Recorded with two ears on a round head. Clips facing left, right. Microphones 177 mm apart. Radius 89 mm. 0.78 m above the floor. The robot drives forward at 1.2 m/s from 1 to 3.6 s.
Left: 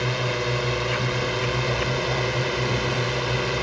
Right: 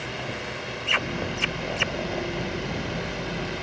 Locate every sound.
0.0 s a drone: 65° left (ahead or behind); by 3.6 s 70° left (ahead or behind)